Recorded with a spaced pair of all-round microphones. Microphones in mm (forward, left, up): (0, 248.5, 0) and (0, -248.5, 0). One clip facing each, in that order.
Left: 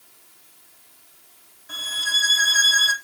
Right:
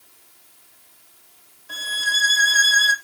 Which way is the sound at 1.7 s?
30° left (ahead or behind).